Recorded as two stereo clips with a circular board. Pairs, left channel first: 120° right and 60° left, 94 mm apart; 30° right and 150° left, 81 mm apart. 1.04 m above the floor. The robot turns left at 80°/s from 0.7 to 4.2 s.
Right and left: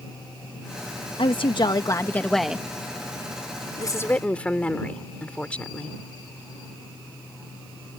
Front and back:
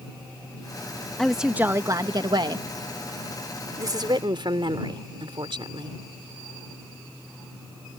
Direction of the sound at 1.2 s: 110° right.